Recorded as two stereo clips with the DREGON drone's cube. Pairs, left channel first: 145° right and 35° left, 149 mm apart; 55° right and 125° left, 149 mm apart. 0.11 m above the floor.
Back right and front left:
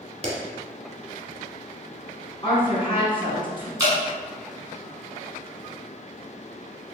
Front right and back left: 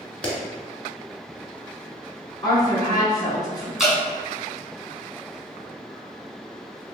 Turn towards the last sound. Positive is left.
turn(degrees=45)